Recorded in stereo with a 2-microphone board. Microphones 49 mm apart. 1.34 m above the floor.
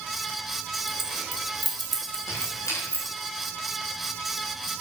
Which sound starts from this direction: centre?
Keys jangling, at 0.9 s.